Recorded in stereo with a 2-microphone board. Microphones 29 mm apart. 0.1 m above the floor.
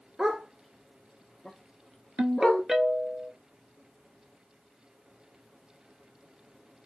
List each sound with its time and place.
0.2 s a dog barking: 25° right (ahead or behind), 0.6 m; by 2.6 s 35° left (ahead or behind), 1.5 m
2.2 s a ringtone: 25° right (ahead or behind), 0.6 m